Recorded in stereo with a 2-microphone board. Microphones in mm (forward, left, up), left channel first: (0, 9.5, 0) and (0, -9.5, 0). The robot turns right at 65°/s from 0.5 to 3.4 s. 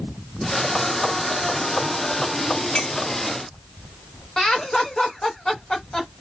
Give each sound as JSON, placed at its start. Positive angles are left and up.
{"t": 2.8, "sound": "a clink", "side_deg": 45, "distance_m": 1.0}
{"t": 4.4, "sound": "laughter", "side_deg": 35, "distance_m": 1.3}